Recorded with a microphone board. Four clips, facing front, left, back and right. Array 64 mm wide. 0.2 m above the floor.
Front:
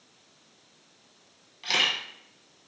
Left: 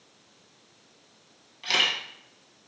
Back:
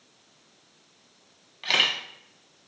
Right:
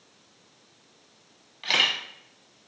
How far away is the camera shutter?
About 0.7 m.